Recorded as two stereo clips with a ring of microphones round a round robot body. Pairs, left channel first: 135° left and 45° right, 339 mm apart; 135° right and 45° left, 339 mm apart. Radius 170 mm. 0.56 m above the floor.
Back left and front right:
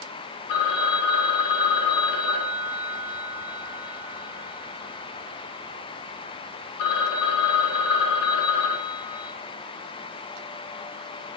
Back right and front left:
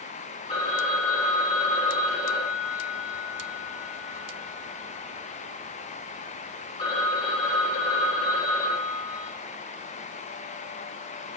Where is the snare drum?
No snare drum in this recording.